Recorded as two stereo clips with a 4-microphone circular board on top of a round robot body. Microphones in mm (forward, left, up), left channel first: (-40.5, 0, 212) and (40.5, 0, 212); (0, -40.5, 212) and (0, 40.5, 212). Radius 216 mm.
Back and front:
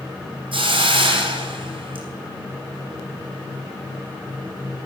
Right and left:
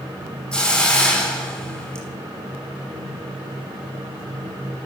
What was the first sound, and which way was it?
A hiss, 10° right.